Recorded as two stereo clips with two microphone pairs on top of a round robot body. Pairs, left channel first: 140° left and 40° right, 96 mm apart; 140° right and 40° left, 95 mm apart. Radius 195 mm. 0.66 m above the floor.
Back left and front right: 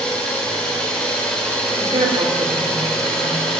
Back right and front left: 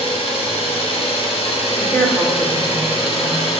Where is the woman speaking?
65° right, 3 m.